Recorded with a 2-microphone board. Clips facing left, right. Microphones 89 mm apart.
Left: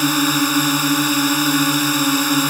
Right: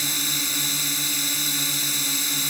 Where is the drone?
70° left (ahead or behind).